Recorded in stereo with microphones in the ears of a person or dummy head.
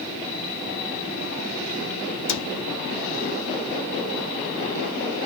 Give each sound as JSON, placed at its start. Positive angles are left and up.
{"t": 2.3, "sound": "a cupboard door", "side_deg": 70, "distance_m": 0.8}